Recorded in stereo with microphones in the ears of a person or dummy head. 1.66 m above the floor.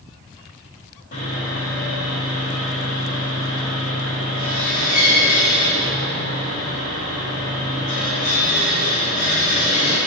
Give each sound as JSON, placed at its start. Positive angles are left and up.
{"t": 1.1, "sound": "sawing", "side_deg": 45, "distance_m": 3.5}